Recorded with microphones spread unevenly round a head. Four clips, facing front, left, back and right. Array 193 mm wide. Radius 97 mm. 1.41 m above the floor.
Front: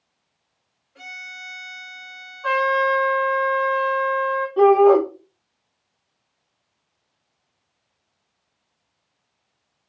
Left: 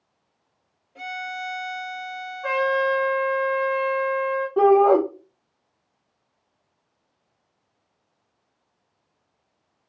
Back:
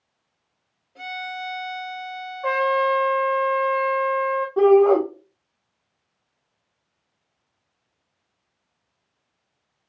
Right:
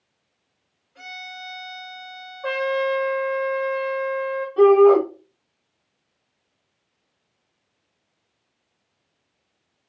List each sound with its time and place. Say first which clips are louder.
0.9 s a violin: left 7 dB, back 9 dB; 120° left, 0.7 m
2.4 s a trumpet: left 1 dB, front 1 dB; 150° left, 1.9 m
4.6 s a shout: right 3 dB, front 1 dB; 105° left, 0.9 m